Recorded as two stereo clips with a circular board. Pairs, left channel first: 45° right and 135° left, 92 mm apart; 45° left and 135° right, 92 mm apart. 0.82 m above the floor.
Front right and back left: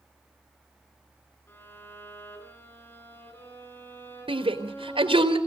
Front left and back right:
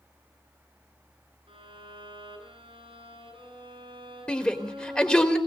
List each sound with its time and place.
1.5 s a violin: 110° right, 8 m
4.3 s a shout: 125° left, 4 m